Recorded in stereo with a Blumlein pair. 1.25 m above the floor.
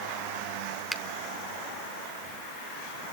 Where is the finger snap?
5° right, 1.3 m.